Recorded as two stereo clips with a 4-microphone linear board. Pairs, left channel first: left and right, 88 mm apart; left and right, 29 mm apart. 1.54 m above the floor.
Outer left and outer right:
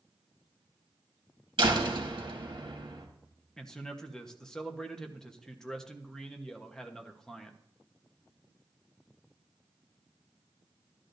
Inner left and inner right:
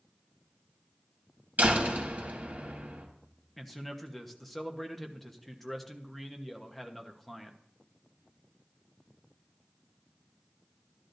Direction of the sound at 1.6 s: 65° right (ahead or behind).